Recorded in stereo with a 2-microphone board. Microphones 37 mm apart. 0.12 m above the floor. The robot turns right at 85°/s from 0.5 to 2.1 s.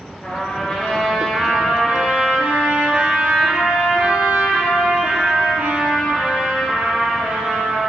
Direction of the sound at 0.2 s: 120° left.